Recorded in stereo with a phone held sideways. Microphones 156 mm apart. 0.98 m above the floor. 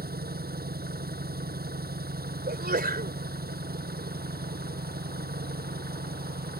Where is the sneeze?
80° right.